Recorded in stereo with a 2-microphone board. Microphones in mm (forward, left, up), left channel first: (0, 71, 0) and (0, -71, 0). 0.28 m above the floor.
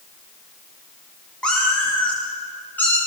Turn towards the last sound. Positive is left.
turn(degrees=15)  # may be behind; listen again after turning